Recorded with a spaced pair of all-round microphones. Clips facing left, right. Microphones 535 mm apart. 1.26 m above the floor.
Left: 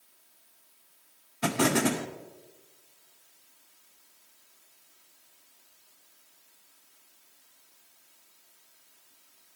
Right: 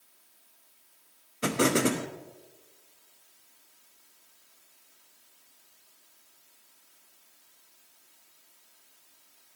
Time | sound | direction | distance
1.4 | an explosion | 15° left (ahead or behind) | 0.7 m